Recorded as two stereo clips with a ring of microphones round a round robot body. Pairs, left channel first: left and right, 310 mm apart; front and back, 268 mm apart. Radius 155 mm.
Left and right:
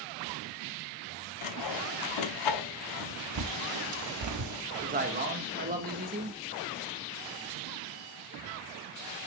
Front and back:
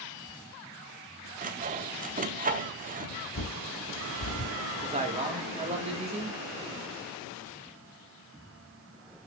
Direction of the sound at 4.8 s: 130° right.